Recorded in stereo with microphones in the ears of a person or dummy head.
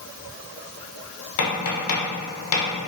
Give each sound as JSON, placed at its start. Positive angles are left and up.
{"t": 1.4, "sound": "tapping", "side_deg": 75, "distance_m": 1.0}